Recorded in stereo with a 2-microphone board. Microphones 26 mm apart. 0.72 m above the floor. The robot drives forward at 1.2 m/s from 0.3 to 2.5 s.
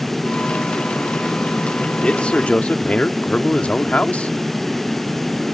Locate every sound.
2.0 s a man speaking: 40° left (ahead or behind); by 4.3 s 55° left (ahead or behind)